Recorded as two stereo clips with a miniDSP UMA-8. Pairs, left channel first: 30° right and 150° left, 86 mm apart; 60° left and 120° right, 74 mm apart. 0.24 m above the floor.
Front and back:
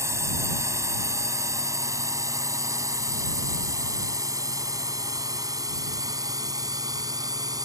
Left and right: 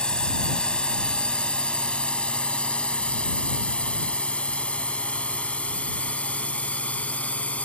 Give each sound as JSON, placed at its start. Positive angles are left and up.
{"t": 0.0, "sound": "a drone", "azimuth_deg": 130}